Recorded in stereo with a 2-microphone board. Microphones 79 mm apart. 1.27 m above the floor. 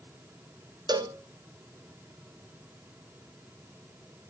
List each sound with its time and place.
0.9 s a cowbell: 60° right (ahead or behind), 0.6 m